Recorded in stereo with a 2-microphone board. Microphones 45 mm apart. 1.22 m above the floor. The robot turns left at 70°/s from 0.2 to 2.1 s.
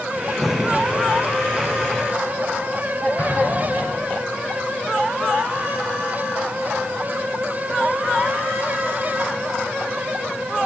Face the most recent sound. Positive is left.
turn(degrees=40)  # may be behind; listen again after turning